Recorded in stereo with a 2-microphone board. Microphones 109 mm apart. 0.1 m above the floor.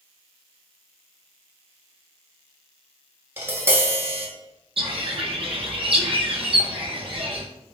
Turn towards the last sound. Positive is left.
turn(degrees=-60)  # may be behind; listen again after turning